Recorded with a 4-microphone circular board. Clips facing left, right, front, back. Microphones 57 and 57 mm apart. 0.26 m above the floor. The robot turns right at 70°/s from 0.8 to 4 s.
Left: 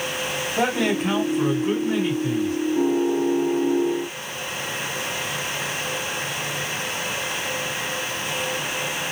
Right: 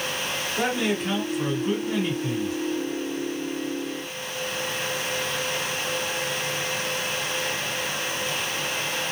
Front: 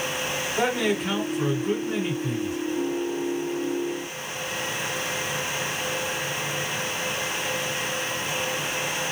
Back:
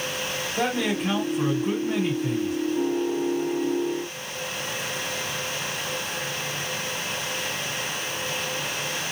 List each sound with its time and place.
0.6 s a man speaking: 90° left, 2.0 m; by 2.6 s 145° right, 2.0 m